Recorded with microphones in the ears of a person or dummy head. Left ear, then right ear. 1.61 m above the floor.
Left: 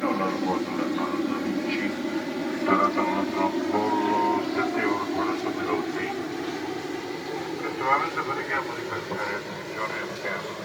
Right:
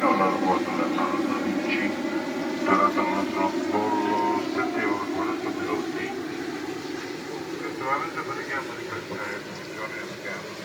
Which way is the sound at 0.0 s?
30° right (ahead or behind).